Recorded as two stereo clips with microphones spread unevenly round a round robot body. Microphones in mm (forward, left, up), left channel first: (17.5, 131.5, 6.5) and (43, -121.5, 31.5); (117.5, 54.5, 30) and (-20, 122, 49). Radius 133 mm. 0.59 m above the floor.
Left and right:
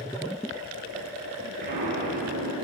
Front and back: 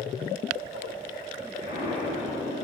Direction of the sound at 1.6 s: 140° right.